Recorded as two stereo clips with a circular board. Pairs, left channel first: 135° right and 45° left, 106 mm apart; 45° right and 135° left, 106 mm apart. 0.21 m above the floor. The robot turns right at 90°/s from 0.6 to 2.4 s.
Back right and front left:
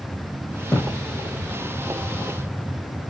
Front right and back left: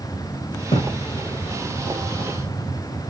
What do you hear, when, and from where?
0.7 s a thud: 55° right, 4 m; by 1.0 s 30° right, 4 m